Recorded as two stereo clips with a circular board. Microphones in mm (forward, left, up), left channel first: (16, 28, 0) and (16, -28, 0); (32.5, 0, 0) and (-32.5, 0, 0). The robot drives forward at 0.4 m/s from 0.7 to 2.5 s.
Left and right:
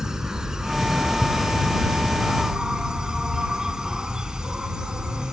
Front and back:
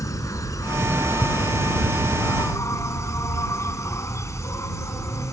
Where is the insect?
10° right; by 5.3 s 15° right.